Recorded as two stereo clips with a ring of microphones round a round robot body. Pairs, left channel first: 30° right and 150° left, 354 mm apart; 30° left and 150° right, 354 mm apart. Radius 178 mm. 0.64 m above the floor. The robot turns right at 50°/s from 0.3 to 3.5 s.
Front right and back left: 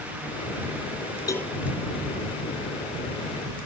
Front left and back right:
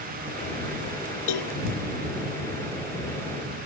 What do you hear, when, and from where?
1.3 s a cowbell: 50° left; by 1.6 s 65° left